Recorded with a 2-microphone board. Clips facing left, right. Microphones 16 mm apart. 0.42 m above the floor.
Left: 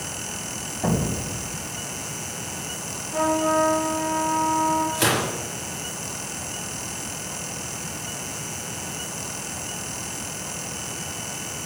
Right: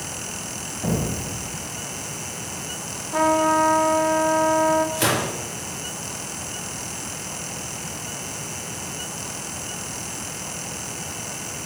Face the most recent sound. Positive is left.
turn(degrees=-5)  # may be behind; listen again after turning